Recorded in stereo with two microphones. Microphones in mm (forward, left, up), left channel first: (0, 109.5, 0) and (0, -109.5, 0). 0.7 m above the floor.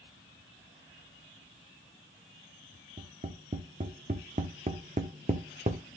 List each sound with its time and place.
3.0 s tapping: 35° right (ahead or behind), 1.2 m